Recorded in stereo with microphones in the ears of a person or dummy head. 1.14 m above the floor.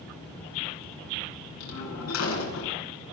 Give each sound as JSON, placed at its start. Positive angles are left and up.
{"t": 1.6, "sound": "a door slam", "side_deg": 90, "distance_m": 9.0}